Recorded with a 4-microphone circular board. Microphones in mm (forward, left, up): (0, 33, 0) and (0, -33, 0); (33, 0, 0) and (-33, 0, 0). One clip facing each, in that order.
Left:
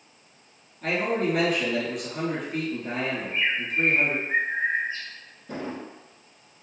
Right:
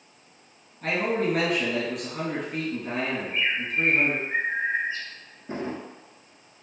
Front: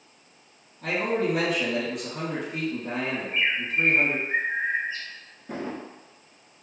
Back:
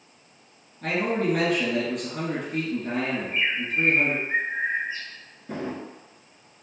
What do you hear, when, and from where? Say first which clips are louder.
0.8 s a man speaking: even, back 1 dB; straight behind, 1.9 m
3.1 s a bird: even, even; 115° left, 1.7 m
5.5 s a drawer: right 2 dB, back 1 dB; 90° right, 0.7 m